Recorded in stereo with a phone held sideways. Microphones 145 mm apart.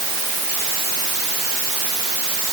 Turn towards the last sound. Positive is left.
No sound to turn to.